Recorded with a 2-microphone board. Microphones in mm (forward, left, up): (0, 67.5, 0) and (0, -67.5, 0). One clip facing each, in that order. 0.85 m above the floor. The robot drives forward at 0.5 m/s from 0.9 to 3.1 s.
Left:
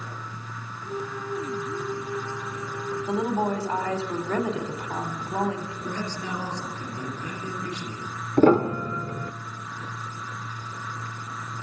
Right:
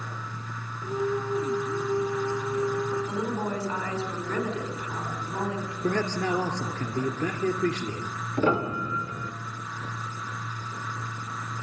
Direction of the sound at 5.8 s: 60° right (ahead or behind).